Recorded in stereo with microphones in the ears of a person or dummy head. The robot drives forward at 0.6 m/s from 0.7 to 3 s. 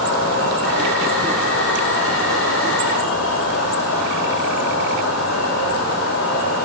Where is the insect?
80° left, 6.5 m; by 6.7 s 75° left (ahead or behind), 6.5 m.